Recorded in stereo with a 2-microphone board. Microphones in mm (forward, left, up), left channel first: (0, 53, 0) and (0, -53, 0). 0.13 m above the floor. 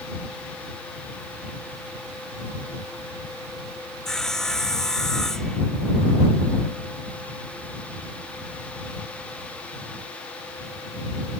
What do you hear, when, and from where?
4.0 s sawing: 5° left (ahead or behind)